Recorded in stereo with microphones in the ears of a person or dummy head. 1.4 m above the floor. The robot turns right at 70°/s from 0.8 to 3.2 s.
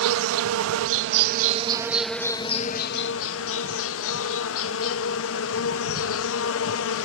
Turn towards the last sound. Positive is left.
turn(degrees=80)